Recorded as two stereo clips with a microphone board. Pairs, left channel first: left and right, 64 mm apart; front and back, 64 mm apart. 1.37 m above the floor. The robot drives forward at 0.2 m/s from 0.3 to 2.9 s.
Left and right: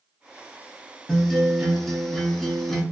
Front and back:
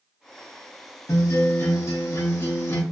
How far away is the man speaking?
No man speaking in this recording.